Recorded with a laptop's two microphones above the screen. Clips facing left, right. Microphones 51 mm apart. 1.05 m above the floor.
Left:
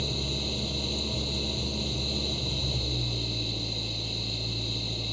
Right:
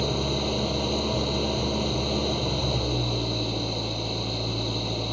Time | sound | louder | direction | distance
0.0 | an engine running | right 7 dB | 55° right (ahead or behind) | ?